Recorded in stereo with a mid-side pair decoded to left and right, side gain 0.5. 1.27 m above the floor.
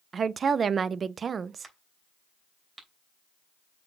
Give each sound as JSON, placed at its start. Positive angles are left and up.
{"t": 0.1, "sound": "a woman speaking", "azimuth_deg": -40, "distance_m": 0.6}
{"t": 1.6, "sound": "a crack", "azimuth_deg": -25, "distance_m": 3.0}